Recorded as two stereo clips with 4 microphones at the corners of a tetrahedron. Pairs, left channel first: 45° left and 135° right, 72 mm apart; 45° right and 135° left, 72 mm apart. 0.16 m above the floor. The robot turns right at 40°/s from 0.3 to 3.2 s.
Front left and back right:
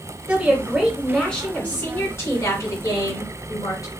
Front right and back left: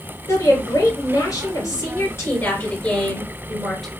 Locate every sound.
0.3 s a woman speaking: 70° right, 1.8 m; by 3.9 s 45° left, 1.8 m